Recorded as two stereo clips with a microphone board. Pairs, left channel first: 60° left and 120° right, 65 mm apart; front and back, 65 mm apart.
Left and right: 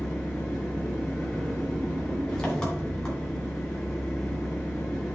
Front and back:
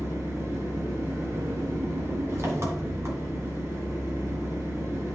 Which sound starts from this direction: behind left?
An engine running, at 0.0 s.